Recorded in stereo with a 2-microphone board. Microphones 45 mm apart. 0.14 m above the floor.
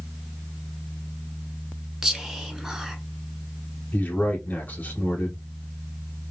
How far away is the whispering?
About 1.2 m.